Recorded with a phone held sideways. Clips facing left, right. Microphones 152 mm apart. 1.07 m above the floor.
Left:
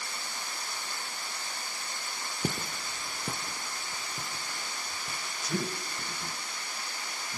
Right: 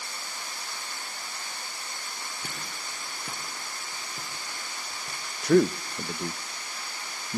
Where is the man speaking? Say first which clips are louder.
Right 14 dB; 65° right (ahead or behind), 0.6 m.